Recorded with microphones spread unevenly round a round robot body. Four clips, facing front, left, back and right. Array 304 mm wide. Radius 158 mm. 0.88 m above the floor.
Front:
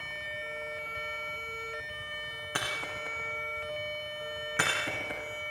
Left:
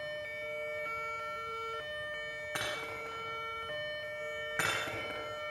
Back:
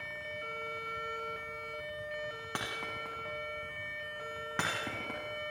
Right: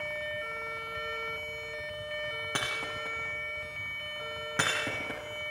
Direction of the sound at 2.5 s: 135° right.